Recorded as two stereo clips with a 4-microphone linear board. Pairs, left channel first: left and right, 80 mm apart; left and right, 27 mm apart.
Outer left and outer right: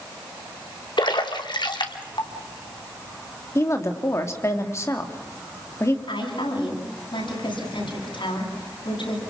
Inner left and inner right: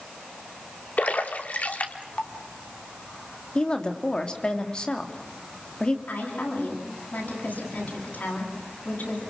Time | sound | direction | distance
1.0 | a splash | 65° left (ahead or behind) | 2.5 m
3.5 | a woman speaking | 35° left (ahead or behind) | 2.5 m
6.1 | a woman speaking | 80° left | 10 m